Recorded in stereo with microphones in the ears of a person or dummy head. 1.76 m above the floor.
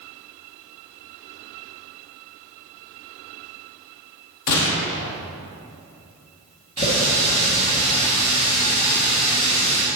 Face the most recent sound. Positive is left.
turn(degrees=30)  # may be behind; listen again after turning